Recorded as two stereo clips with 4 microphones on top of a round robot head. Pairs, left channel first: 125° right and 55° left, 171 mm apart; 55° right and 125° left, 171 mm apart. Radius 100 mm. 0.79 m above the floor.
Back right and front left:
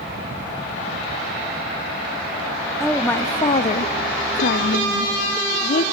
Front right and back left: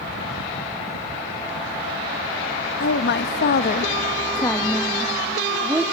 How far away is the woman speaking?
About 0.9 m.